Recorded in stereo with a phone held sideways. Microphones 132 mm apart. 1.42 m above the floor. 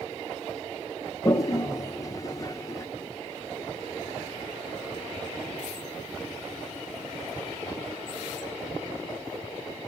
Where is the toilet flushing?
25° left (ahead or behind), 0.7 m.